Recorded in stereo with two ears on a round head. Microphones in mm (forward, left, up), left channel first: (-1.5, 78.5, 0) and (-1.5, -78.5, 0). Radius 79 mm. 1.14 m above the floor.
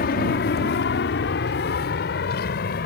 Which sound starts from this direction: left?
An aircraft, at 0.0 s.